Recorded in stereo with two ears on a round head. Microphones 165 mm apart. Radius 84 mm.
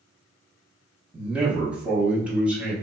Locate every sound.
1.1 s a man speaking: 5° right (ahead or behind), 0.8 m